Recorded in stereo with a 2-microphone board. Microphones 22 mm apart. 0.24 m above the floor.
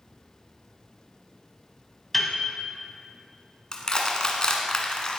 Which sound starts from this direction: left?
Crushing, at 3.7 s.